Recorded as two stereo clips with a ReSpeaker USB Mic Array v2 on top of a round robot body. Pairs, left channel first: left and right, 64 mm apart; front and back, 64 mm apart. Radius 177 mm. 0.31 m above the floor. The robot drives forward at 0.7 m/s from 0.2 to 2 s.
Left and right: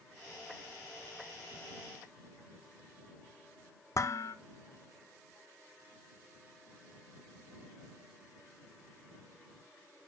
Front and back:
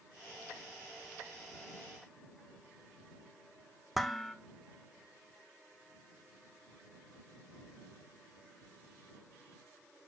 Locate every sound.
4.0 s dishes clattering: 90° left, 0.9 m